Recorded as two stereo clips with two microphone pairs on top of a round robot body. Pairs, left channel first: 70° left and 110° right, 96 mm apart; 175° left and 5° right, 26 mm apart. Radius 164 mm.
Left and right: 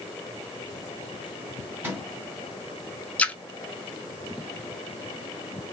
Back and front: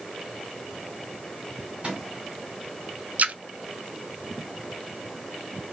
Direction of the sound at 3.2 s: 5° right.